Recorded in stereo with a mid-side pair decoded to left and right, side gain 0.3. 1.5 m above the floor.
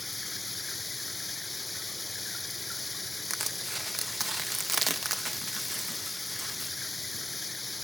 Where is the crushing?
35° right.